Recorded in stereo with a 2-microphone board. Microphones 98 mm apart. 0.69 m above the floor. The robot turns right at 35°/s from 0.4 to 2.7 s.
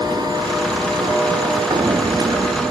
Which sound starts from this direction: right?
Footsteps, at 1.7 s.